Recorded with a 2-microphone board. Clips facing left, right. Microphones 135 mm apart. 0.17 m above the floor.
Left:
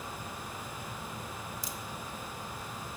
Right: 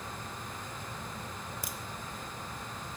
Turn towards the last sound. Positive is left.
turn(degrees=-70)  # may be behind; listen again after turning